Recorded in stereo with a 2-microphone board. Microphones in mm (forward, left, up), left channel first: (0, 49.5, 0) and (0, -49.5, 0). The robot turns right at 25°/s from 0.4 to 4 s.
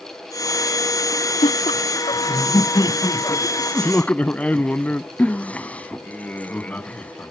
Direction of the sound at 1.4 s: 100° left.